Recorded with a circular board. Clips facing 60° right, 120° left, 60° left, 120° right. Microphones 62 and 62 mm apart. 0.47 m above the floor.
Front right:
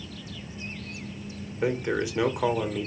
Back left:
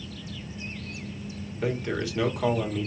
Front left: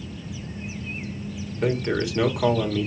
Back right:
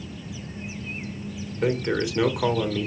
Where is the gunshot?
I don't hear a gunshot.